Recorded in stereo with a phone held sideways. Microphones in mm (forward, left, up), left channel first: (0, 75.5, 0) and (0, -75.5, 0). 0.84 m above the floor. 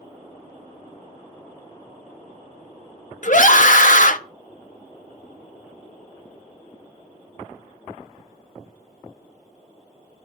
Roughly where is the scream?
Left.